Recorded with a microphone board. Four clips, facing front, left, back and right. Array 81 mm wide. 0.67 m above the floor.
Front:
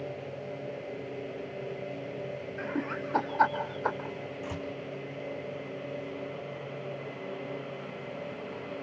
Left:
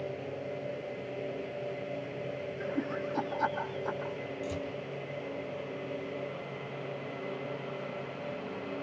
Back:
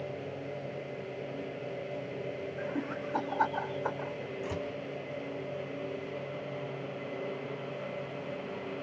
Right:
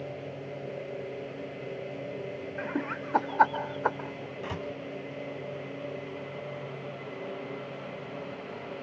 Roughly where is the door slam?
Right.